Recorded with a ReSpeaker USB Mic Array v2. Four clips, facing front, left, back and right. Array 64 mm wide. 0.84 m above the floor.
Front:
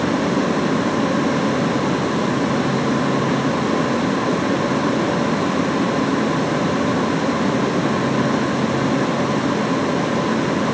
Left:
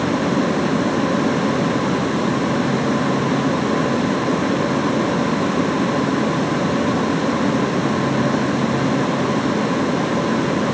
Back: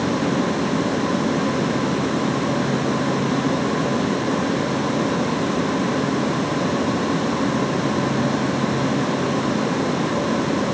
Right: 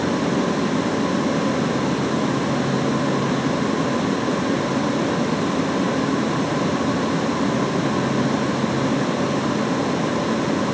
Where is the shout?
I don't hear a shout.